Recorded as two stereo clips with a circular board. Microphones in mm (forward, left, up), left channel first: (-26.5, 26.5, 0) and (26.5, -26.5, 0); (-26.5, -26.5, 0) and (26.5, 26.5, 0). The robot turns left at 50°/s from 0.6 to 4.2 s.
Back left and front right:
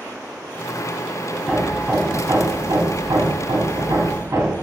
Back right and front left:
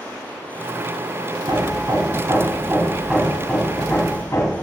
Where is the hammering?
45° left, 1.4 m; by 4.6 s 90° right, 1.4 m.